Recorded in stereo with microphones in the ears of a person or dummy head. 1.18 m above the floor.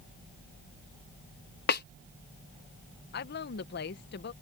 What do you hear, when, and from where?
1.7 s a snare drum: 55° left (ahead or behind)
3.1 s a woman speaking: 50° left (ahead or behind)